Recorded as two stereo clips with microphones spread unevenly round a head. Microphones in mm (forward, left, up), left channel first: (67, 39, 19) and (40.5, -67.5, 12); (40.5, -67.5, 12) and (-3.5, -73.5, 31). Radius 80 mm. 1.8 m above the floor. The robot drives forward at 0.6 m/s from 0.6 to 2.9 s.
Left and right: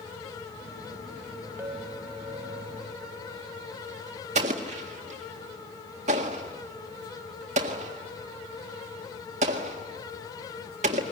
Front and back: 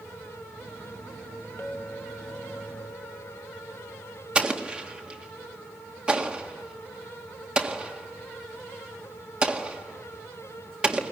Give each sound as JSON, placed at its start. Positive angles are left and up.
{"t": 1.6, "sound": "a clink", "azimuth_deg": -35, "distance_m": 2.5}
{"t": 4.3, "sound": "an explosion", "azimuth_deg": -130, "distance_m": 1.8}